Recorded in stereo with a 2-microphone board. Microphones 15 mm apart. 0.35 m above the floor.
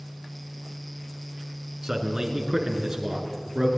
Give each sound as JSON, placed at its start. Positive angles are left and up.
{"t": 1.8, "sound": "a man speaking", "side_deg": -30, "distance_m": 3.5}